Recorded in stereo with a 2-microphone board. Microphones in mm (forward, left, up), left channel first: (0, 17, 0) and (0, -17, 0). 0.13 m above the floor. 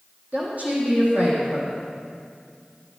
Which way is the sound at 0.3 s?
50° right (ahead or behind).